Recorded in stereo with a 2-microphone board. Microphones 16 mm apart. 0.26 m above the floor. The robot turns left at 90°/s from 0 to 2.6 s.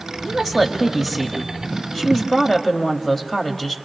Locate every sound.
0.2 s a woman speaking: 20° right (ahead or behind), 1.4 m; by 3.8 s 15° left (ahead or behind), 1.4 m